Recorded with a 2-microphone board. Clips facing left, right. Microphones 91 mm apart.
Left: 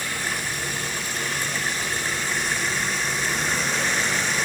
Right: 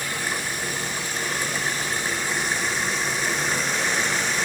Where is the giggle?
No giggle in this recording.